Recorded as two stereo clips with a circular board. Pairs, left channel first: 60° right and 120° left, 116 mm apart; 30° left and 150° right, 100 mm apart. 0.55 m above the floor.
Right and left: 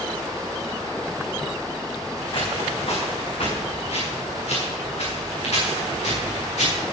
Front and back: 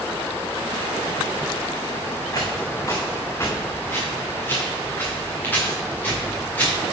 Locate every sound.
2.3 s footsteps: 20° right, 3.5 m; by 6.8 s 45° right, 8.5 m